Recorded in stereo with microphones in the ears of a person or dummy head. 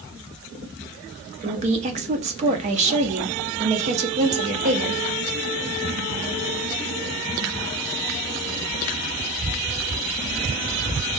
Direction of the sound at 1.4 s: 35° right (ahead or behind).